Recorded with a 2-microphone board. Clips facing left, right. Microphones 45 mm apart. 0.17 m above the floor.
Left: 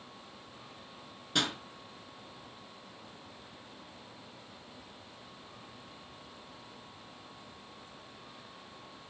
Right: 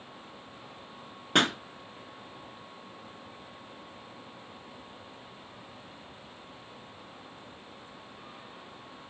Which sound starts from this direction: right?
A pop, at 1.4 s.